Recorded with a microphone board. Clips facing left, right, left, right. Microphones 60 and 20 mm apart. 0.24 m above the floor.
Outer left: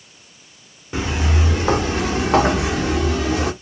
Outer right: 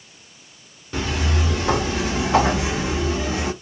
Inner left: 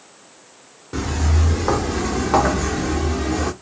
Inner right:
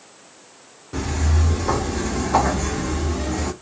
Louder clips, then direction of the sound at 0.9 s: Outer left 2 dB, inner left 2 dB; 20° left (ahead or behind).